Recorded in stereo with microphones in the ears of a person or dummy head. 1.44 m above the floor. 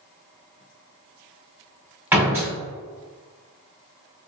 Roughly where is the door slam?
Centre.